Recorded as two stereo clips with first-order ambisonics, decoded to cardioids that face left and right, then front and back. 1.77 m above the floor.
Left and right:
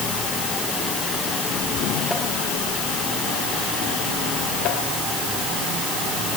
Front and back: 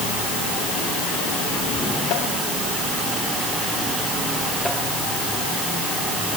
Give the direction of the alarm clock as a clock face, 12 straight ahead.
No alarm clock in this recording.